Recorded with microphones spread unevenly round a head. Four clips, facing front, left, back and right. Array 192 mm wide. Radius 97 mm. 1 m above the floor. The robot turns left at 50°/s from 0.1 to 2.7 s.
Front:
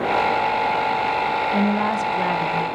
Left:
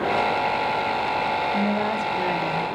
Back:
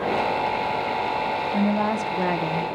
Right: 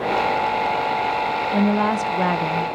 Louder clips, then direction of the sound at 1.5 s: Right 4 dB, even; 65° right.